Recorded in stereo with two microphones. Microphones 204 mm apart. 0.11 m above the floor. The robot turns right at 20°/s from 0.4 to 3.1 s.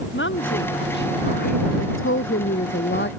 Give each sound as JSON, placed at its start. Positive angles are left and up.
{"t": 0.1, "sound": "a woman speaking", "side_deg": 65}
{"t": 1.8, "sound": "a woman speaking", "side_deg": 75}